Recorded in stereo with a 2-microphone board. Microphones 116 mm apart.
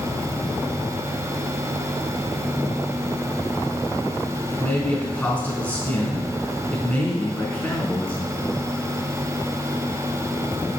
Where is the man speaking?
15° left (ahead or behind), 3.5 m.